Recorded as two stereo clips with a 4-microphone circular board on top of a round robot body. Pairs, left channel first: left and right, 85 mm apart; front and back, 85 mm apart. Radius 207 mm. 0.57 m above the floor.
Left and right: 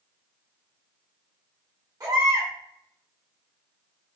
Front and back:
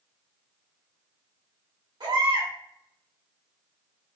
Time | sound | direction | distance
2.0 | a baby crying | 140° right | 2.5 m